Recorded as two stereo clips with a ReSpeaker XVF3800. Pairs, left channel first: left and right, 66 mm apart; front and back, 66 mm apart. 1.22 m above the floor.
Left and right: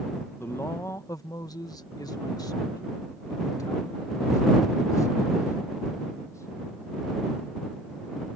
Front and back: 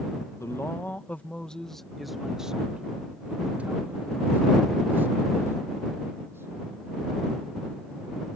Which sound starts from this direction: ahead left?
A man speaking, at 0.4 s.